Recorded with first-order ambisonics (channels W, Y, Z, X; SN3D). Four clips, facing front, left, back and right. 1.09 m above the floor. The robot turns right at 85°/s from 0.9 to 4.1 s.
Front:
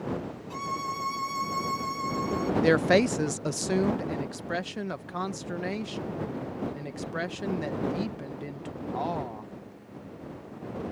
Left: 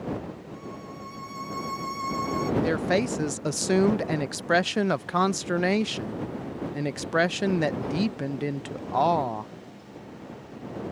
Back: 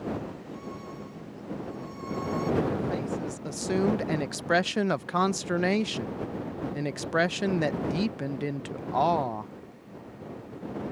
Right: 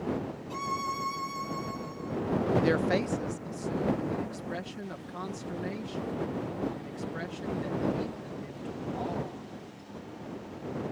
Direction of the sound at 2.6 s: 10° right.